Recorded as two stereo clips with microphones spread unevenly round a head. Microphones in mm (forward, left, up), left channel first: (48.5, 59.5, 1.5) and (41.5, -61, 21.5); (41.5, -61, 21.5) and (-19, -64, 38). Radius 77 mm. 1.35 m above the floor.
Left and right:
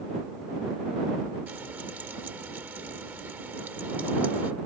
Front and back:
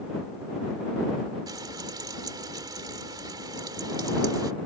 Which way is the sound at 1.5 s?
170° right.